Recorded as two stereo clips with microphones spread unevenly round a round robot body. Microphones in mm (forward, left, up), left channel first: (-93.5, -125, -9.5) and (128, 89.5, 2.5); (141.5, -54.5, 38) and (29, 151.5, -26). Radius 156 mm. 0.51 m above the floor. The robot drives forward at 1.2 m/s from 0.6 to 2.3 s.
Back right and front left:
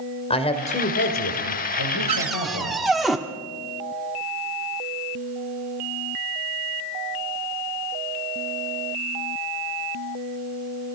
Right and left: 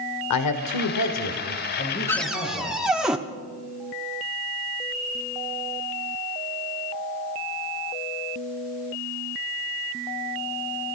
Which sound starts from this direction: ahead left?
A cupboard door, at 2.1 s.